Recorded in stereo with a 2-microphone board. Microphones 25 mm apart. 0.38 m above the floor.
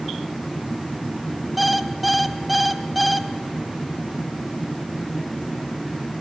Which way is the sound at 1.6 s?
5° right (ahead or behind).